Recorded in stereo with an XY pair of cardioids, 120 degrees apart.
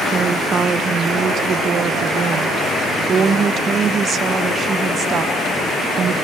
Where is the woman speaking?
40° right, 0.9 m.